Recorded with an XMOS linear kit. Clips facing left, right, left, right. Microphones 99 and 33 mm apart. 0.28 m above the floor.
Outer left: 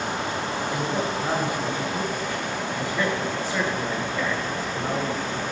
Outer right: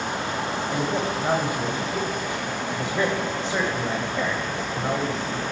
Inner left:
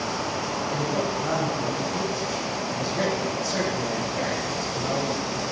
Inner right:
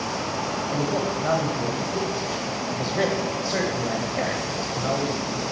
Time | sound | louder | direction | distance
0.7 | a man speaking | outer right 1 dB, inner right 1 dB | 25° right (ahead or behind) | 1.4 m